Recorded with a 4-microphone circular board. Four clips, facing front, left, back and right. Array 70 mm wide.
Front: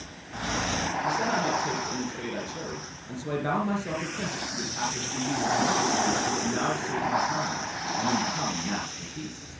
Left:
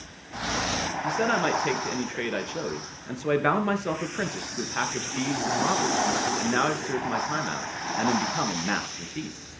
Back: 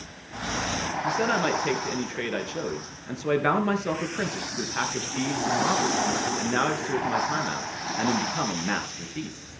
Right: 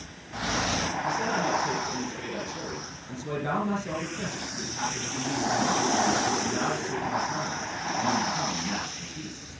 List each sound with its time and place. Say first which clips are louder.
1.0 s a man speaking: left 4 dB, back 3 dB; 120° left, 3 m